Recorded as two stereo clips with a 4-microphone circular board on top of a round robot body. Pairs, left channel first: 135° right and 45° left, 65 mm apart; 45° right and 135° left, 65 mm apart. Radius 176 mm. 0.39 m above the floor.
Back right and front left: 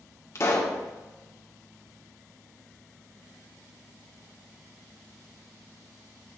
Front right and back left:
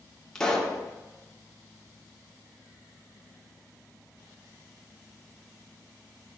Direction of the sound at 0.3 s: 125° right.